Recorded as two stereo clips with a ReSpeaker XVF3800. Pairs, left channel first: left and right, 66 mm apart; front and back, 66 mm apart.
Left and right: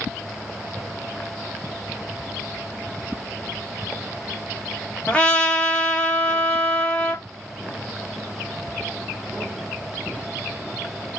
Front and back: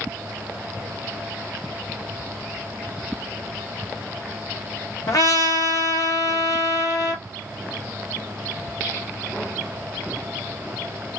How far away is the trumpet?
About 1.2 m.